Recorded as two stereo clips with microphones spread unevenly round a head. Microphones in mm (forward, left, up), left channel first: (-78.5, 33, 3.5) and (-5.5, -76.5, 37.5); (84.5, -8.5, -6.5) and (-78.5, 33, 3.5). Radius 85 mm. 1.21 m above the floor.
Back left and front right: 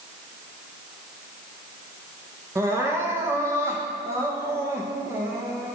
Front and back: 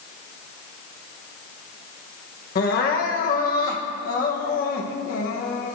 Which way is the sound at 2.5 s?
20° left.